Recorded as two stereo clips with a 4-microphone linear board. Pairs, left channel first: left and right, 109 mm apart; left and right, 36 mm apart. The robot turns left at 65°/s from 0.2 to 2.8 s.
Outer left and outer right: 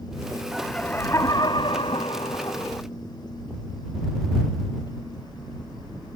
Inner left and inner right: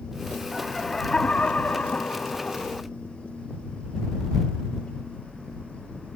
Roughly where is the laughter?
Behind.